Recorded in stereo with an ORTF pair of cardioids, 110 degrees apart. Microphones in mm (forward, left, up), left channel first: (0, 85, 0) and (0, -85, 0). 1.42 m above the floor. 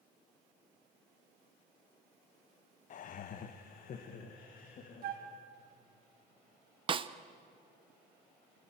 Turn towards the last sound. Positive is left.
turn(degrees=-30)